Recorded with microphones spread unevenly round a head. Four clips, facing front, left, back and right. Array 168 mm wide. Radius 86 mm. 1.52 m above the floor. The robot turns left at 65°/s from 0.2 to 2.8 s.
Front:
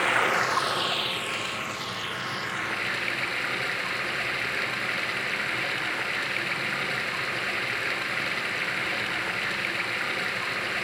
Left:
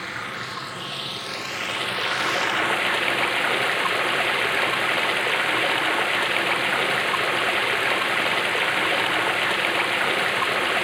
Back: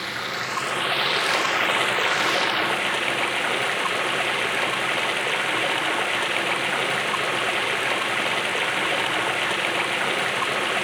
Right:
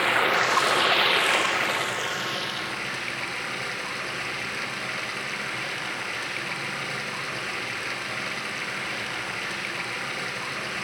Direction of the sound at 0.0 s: 70° right.